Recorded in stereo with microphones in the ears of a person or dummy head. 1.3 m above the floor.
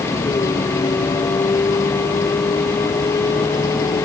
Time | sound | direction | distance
0.0 | a vehicle | 15° left (ahead or behind) | ?